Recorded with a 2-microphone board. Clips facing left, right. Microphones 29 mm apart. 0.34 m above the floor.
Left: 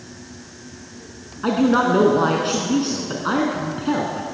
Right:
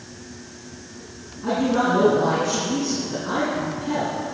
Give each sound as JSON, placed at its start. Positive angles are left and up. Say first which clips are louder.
{"t": 1.4, "sound": "a man speaking", "louder": "left 3 dB", "side_deg": 60, "distance_m": 3.5}